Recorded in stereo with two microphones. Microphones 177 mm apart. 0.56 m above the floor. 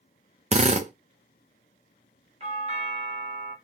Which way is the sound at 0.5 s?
40° right (ahead or behind).